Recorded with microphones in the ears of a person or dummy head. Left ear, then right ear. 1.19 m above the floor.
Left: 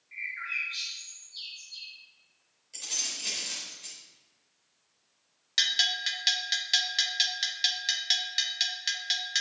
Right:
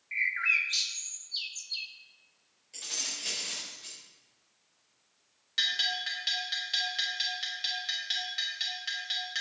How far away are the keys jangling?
About 4 m.